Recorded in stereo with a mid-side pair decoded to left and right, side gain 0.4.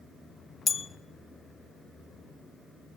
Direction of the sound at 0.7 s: 45° left.